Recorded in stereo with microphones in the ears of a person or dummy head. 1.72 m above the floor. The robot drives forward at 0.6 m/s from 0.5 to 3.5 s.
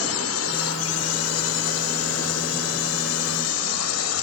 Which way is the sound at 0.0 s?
70° left (ahead or behind).